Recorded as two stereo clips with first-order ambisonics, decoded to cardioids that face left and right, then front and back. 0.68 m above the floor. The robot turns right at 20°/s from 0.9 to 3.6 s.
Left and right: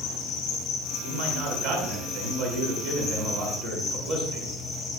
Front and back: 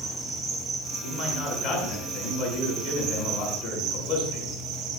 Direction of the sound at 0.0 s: 90° left.